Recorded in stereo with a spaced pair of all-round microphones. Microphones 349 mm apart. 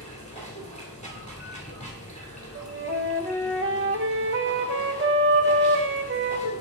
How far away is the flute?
About 0.8 m.